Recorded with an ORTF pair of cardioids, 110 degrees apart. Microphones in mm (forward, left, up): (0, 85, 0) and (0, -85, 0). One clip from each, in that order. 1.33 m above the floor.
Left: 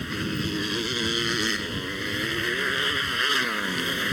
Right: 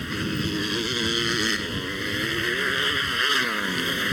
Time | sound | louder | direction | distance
0.0 | a motorcycle | right 1 dB | straight ahead | ?